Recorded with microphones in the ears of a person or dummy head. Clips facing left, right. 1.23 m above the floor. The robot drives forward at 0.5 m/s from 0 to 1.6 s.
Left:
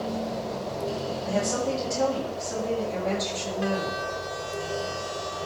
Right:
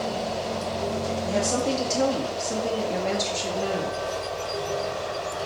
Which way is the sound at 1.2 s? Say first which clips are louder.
Right 1 dB; 40° right (ahead or behind).